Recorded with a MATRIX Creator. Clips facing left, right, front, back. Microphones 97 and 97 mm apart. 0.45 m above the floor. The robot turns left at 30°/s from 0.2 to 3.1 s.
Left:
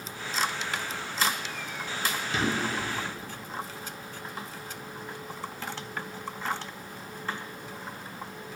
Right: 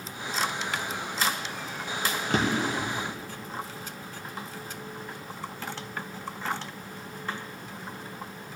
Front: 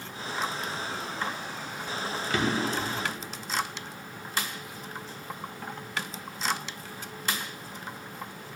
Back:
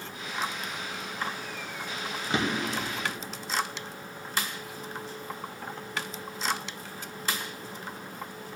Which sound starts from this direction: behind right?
A drawer, at 2.3 s.